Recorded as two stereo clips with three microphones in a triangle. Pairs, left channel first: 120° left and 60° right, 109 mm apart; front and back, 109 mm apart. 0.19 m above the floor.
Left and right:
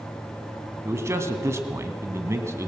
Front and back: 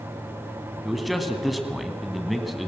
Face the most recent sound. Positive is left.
turn(degrees=-90)